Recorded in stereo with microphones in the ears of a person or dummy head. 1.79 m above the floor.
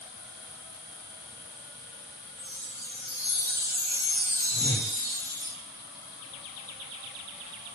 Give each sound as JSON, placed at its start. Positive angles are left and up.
{"t": 2.4, "sound": "a chime", "side_deg": 0, "distance_m": 1.2}
{"t": 4.5, "sound": "a whoosh", "side_deg": 30, "distance_m": 1.4}